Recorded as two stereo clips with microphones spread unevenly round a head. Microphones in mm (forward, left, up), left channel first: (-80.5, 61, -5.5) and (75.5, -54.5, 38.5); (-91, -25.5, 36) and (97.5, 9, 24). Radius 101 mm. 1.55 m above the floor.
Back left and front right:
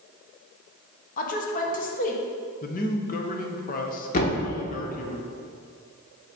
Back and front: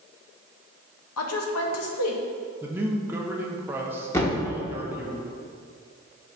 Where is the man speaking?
90° left, 0.8 m.